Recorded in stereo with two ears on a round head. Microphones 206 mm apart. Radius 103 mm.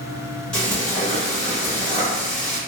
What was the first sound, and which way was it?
Frying, 5° left (ahead or behind).